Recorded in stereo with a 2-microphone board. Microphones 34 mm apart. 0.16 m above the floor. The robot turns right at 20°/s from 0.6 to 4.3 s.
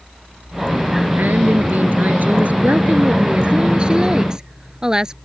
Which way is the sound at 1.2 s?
85° right.